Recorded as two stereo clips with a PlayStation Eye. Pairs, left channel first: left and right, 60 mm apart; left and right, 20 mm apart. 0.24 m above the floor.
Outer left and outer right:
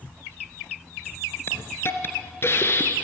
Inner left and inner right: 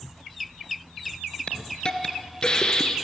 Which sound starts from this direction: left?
A hiss, at 1.5 s.